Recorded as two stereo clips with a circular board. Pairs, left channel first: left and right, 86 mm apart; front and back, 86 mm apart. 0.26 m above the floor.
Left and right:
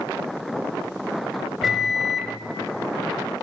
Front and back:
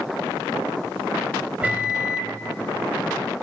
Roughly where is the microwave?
Behind.